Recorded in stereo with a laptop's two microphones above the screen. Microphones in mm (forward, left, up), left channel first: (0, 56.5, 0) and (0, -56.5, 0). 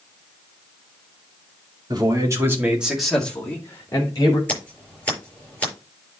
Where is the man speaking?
40° right (ahead or behind), 2.5 m; by 4.4 s 40° left (ahead or behind), 3 m.